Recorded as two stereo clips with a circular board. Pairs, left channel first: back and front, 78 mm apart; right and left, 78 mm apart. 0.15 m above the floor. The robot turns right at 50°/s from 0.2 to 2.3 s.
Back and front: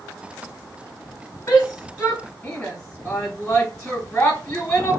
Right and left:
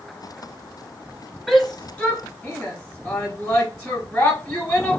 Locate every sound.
1.5 s a shout: 170° right, 1.1 m; by 5.0 s 130° right, 1.1 m